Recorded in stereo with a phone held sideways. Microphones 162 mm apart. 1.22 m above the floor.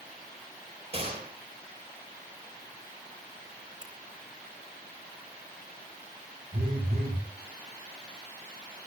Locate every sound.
0.9 s a gunshot: 40° right (ahead or behind), 4.5 m
3.8 s a finger snap: 25° right (ahead or behind), 4 m
6.5 s a phone buzzing: 60° right (ahead or behind), 5.5 m